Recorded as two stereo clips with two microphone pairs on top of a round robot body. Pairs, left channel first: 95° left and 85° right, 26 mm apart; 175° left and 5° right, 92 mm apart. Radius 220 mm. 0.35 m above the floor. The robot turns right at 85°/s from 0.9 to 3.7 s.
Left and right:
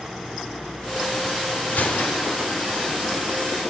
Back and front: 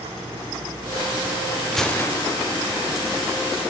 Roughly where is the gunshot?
Left.